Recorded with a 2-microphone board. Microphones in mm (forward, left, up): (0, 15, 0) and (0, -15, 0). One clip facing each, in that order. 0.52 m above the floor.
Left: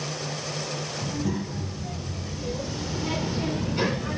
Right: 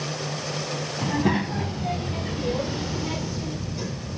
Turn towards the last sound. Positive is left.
turn(degrees=70)  # may be behind; listen again after turning